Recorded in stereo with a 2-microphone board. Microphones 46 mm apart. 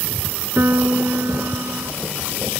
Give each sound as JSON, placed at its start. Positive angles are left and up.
{"t": 0.6, "sound": "a piano", "side_deg": -60}